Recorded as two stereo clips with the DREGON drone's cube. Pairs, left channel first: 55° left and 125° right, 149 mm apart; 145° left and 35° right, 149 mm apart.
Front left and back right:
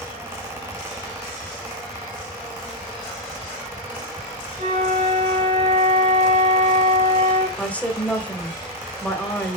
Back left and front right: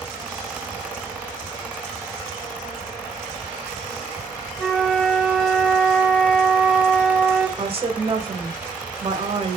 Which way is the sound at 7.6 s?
20° right.